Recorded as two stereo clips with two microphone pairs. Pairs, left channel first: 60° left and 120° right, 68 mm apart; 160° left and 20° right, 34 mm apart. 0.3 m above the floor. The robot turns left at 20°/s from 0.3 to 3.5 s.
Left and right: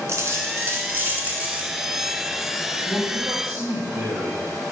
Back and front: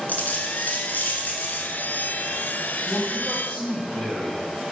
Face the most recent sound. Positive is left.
turn(degrees=170)